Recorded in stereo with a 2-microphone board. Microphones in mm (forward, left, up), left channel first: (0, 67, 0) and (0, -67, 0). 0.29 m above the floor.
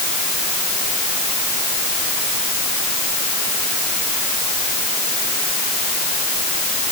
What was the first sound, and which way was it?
Only background noise.